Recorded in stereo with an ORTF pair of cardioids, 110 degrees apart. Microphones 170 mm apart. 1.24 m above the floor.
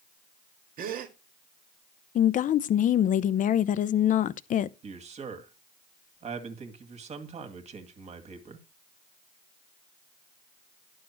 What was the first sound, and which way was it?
A gasp, 55° right.